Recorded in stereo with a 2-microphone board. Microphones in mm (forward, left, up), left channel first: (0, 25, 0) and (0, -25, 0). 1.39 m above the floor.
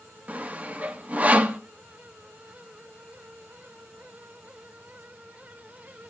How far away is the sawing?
About 1.1 m.